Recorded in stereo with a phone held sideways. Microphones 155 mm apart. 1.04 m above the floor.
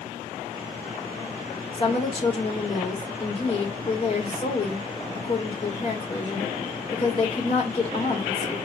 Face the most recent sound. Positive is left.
turn(degrees=40)  # may be behind; listen again after turning